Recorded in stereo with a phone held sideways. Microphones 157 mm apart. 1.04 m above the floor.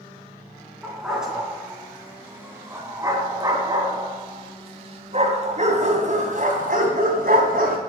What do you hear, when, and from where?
0.8 s a dog barking: centre (ahead or behind), 3.5 m; by 7.8 s 75° right (ahead or behind), 3 m